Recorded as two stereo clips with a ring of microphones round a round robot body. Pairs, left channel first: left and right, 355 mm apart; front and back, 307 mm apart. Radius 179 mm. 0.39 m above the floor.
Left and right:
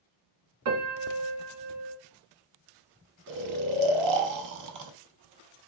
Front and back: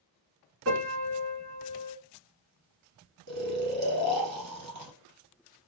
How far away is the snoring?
About 0.6 m.